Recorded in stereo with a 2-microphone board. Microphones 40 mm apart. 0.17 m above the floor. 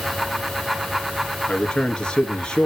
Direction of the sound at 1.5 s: 20° left (ahead or behind).